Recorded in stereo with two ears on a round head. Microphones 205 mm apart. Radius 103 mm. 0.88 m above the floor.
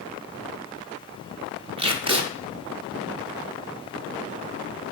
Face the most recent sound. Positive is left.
turn(degrees=-25)  # may be behind; listen again after turning